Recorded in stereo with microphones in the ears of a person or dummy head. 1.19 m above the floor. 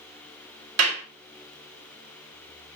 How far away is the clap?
About 3.5 m.